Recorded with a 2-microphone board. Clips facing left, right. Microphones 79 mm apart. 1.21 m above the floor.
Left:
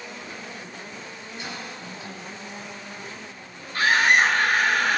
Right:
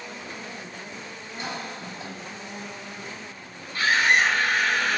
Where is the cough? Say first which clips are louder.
Right 3 dB; 35° right (ahead or behind), 4 m.